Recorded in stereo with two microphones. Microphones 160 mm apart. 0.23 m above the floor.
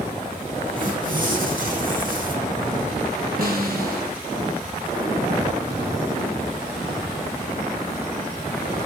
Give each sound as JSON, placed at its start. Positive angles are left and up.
{"t": 0.8, "sound": "tearing paper", "side_deg": -60, "distance_m": 4.0}
{"t": 3.4, "sound": "a snare drum", "side_deg": -65, "distance_m": 4.0}